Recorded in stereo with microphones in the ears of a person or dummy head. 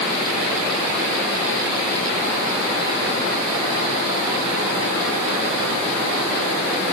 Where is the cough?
No cough in this recording.